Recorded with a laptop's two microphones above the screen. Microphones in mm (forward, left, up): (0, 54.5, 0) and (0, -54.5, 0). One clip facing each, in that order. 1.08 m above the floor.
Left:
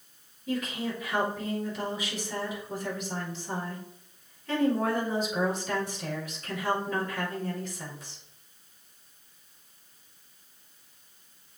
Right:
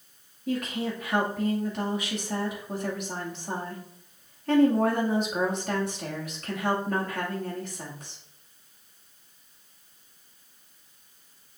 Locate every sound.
0.5 s a woman speaking: 60° right (ahead or behind), 2.5 m